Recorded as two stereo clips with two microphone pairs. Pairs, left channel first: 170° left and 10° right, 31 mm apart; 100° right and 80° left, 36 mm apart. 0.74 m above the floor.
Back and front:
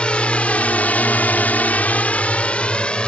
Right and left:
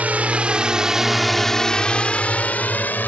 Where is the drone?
120° left; by 3.1 s 135° right.